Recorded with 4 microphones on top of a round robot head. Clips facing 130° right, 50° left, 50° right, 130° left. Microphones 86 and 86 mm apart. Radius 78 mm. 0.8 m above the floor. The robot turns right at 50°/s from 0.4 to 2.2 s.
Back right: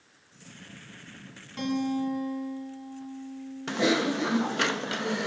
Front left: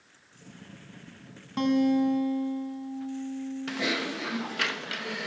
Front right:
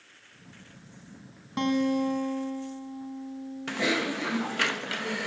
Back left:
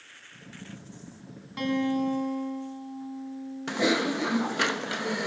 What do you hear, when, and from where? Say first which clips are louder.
1.6 s a guitar: front left 5 dB, front right 1 dB; 10° left, 4 m; by 4.1 s 40° left, 4 m
3.7 s typing on a keyboard: back right 8 dB, back left 3 dB; 170° right, 1.2 m